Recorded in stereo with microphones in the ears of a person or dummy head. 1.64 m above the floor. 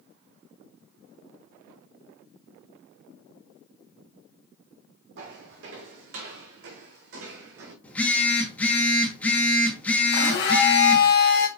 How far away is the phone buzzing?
About 3 m.